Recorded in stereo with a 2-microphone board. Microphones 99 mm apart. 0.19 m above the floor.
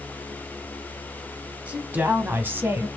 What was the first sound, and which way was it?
A woman speaking, 15° right (ahead or behind).